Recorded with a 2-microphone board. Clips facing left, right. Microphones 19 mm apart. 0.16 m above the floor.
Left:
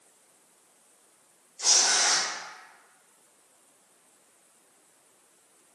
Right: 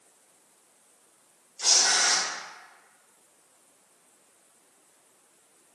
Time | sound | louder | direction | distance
1.6 | tearing paper | right 1 dB | 45° right (ahead or behind) | 1.3 m